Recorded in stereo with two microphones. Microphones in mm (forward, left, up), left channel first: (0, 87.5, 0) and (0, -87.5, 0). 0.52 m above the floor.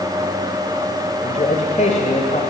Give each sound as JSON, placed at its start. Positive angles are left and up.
{"t": 1.2, "sound": "a man speaking", "side_deg": 45, "distance_m": 2.5}